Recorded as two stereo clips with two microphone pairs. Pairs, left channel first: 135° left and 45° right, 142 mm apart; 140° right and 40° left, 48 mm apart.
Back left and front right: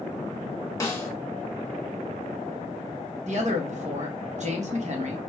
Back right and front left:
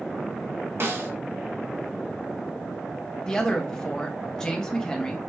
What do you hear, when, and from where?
0.8 s a snare drum: 65° left, 1.4 m
3.3 s a man speaking: 65° right, 1.2 m